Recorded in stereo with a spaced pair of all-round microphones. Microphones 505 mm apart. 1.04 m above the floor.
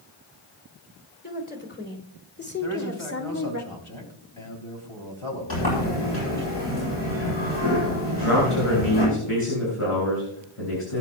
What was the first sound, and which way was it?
A woman speaking, 20° left (ahead or behind).